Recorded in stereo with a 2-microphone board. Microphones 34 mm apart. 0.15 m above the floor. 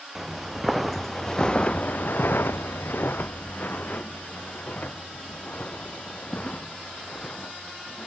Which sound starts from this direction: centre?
Footsteps, at 0.1 s.